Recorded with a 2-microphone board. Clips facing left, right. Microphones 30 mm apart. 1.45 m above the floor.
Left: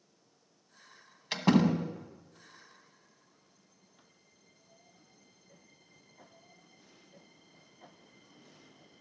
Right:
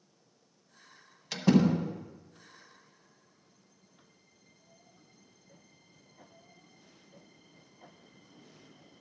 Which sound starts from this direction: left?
A door slam, at 1.3 s.